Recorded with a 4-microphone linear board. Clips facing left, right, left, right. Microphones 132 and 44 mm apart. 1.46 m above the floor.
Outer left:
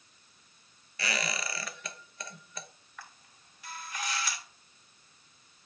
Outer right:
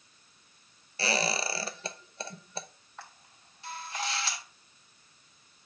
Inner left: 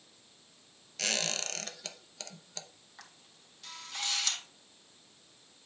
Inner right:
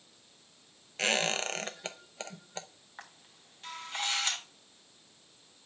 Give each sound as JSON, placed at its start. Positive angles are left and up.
{"t": 1.0, "sound": "a squeak", "side_deg": -30, "distance_m": 0.8}
{"t": 3.0, "sound": "a camera shutter", "side_deg": -30, "distance_m": 1.8}